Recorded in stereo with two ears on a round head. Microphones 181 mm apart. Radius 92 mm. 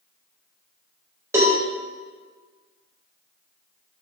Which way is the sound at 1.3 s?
15° right (ahead or behind).